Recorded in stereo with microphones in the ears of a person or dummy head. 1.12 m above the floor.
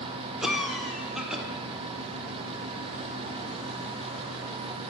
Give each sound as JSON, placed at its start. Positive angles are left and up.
{"t": 0.4, "sound": "a cough", "side_deg": -5, "distance_m": 0.8}